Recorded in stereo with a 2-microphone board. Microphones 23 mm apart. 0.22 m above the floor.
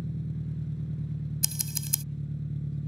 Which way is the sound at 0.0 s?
25° left (ahead or behind).